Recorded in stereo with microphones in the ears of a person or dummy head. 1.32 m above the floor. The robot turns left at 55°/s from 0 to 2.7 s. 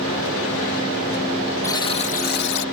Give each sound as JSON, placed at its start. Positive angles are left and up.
{"t": 1.6, "sound": "a buzzer", "azimuth_deg": 165}